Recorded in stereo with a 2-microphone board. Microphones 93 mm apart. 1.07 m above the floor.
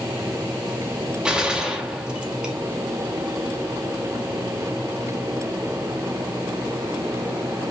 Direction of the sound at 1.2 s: 10° right (ahead or behind).